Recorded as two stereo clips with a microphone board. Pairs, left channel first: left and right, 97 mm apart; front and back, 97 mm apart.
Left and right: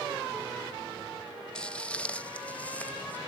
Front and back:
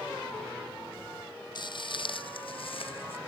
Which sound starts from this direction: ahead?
Footsteps, at 1.6 s.